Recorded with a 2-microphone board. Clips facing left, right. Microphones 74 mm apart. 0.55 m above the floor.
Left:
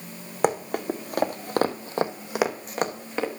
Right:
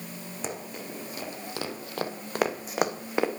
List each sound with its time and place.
0.4 s running footsteps: 60° left (ahead or behind), 1.5 m; by 3.3 s 15° right (ahead or behind), 1.5 m